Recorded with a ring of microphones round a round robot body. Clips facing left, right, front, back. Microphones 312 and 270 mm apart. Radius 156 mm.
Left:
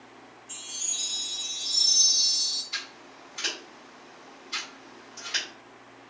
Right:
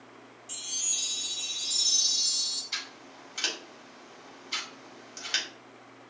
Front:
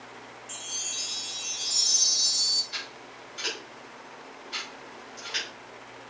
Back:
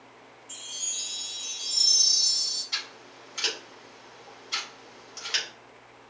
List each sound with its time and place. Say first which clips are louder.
0.5 s a chime: left 1 dB, front 5 dB; 35° right, 0.9 m
2.7 s scissors: even, front 2 dB; 140° right, 2.5 m